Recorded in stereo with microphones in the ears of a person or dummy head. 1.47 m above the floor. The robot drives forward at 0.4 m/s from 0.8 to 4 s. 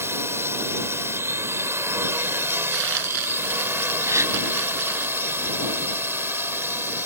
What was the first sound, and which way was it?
A drone, 15° right (ahead or behind).